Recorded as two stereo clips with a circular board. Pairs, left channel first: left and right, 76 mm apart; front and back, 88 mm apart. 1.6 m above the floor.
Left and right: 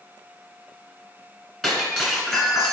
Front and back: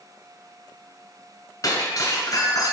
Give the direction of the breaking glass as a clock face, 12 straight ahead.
12 o'clock.